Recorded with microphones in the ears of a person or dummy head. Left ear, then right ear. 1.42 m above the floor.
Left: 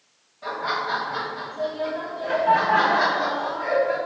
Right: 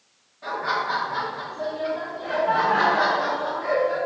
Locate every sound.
0.4 s laughter: 10° left (ahead or behind), 1.1 m; by 4.0 s 75° left (ahead or behind), 2 m